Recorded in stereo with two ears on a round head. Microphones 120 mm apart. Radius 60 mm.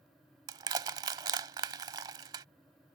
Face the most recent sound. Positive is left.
turn(degrees=-30)  # may be behind; listen again after turning